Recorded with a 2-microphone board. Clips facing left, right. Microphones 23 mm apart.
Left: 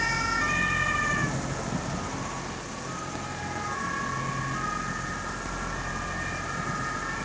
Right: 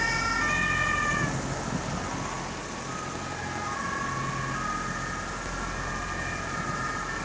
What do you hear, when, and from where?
Only background noise.